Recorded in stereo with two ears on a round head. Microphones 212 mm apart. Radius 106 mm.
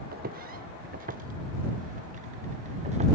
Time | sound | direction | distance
0.1 | footsteps | 40° right (ahead or behind) | ?